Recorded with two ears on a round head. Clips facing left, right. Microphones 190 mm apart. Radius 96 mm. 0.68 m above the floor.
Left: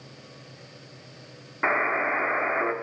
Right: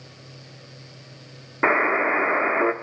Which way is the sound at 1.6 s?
55° right (ahead or behind).